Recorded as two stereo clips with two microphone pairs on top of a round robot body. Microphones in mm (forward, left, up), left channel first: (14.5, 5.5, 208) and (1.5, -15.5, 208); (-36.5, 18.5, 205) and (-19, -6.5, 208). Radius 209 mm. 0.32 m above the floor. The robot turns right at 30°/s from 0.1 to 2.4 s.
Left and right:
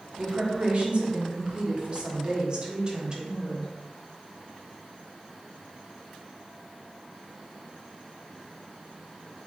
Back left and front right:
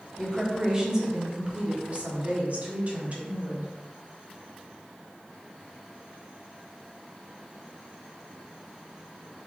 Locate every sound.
0.2 s a woman speaking: 145° right, 1.6 m; by 3.7 s 80° right, 1.6 m